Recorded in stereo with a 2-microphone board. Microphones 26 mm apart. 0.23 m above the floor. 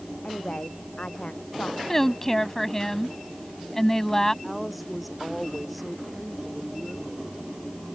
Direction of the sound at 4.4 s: 5° right (ahead or behind).